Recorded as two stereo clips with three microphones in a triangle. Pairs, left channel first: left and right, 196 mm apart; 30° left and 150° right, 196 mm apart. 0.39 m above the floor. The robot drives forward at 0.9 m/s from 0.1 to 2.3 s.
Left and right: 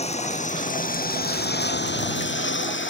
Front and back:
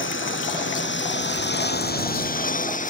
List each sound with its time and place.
0.0 s a lawn mower: 35° left; by 2.9 s 80° left